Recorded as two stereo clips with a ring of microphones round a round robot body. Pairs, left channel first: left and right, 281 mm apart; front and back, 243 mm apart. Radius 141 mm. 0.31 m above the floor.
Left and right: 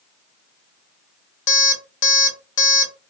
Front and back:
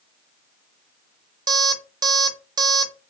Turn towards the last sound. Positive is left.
turn(degrees=115)